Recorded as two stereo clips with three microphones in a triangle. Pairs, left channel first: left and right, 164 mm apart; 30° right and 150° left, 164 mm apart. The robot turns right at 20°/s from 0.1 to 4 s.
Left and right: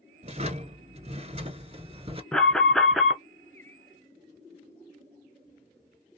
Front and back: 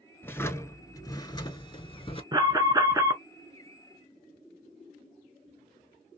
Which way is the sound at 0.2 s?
100° right.